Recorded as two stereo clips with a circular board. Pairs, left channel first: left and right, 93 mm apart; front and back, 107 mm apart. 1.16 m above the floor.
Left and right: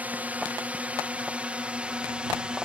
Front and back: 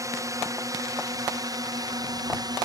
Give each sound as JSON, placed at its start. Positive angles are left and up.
{"t": 0.0, "sound": "a drone", "azimuth_deg": -150}